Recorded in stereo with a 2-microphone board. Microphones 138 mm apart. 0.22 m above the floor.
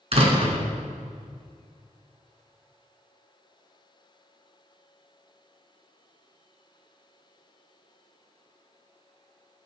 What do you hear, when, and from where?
0.1 s a door slam: 50° right (ahead or behind), 2 m